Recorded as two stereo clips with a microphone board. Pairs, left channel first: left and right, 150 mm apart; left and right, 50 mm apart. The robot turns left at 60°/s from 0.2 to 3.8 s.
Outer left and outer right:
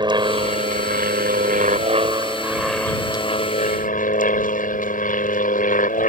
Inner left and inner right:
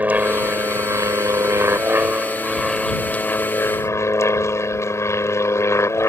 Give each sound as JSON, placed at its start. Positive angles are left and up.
{"t": 0.0, "sound": "an aircraft", "azimuth_deg": -30}